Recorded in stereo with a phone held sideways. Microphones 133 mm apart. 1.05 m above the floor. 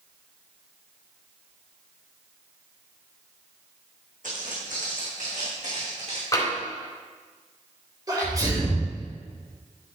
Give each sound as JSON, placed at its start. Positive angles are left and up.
{"t": 4.2, "sound": "footsteps", "side_deg": -75, "distance_m": 4.0}
{"t": 6.3, "sound": "tapping", "side_deg": 25, "distance_m": 3.5}
{"t": 8.1, "sound": "a sneeze", "side_deg": -30, "distance_m": 3.5}